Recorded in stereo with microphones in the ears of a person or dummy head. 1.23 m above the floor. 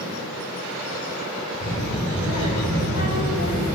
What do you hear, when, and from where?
1.6 s a child speaking: 40° left (ahead or behind), 2.5 m